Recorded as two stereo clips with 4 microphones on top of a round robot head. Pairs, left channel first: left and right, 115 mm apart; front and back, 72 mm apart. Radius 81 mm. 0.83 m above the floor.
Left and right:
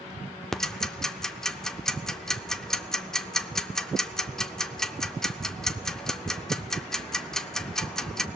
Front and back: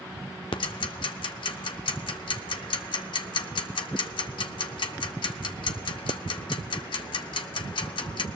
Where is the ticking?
5° left, 0.9 m.